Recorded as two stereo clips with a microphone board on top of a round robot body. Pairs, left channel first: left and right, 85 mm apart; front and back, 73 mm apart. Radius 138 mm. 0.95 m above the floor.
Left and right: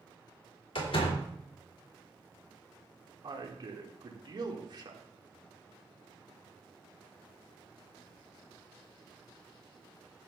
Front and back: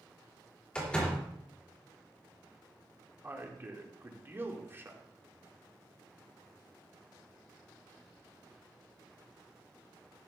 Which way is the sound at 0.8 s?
75° left.